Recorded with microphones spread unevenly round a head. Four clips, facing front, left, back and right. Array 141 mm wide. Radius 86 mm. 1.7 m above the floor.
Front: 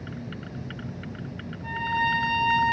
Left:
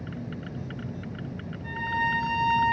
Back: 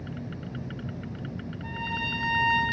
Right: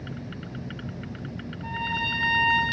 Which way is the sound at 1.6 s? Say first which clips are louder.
Left 2 dB, front 9 dB; 70° right.